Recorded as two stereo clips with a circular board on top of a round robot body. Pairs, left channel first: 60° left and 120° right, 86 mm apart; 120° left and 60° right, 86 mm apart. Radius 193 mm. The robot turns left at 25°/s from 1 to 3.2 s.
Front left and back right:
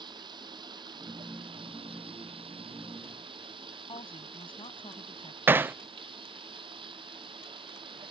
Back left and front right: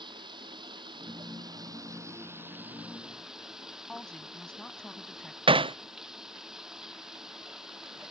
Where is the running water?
90° right; by 8.1 s 145° right.